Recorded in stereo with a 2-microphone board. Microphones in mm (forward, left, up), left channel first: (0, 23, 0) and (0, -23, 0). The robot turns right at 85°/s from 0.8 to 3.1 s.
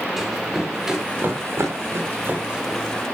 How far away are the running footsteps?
About 9 m.